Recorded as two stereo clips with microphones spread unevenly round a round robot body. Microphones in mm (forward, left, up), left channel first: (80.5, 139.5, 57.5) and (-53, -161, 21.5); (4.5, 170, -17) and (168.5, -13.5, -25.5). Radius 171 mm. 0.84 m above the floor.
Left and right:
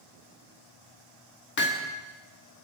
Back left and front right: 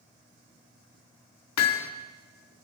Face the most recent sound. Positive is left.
turn(degrees=125)